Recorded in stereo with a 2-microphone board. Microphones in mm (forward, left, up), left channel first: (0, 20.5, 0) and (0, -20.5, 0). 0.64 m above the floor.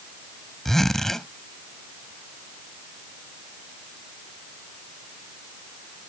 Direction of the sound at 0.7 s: 10° left (ahead or behind).